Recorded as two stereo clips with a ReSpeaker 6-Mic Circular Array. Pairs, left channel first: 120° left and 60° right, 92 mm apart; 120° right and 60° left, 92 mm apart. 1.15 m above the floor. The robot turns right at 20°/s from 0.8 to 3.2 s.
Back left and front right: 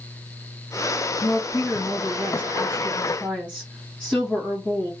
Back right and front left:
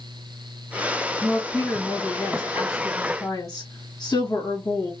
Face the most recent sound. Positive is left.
turn(degrees=-165)